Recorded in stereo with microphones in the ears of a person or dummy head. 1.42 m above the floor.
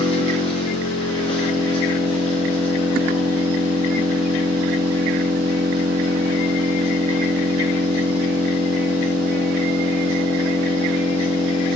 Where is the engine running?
30° left (ahead or behind), 1.2 m.